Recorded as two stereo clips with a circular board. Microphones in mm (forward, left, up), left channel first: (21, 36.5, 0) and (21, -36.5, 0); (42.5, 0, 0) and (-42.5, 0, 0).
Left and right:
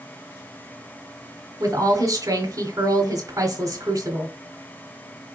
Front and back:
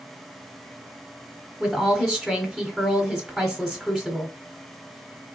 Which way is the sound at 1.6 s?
85° right.